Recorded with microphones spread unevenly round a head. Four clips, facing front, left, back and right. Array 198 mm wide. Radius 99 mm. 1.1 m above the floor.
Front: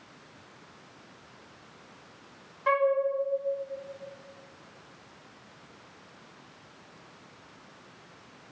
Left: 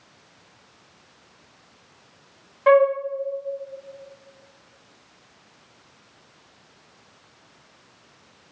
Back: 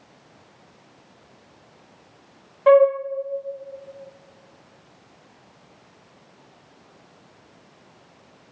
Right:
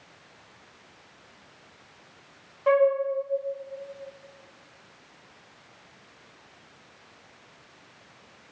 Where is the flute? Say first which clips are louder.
Left 5 dB, back 11 dB; 160° left, 1.3 m.